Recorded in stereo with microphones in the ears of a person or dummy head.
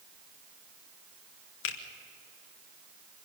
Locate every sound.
1.6 s a finger snap: 65° left (ahead or behind), 1.2 m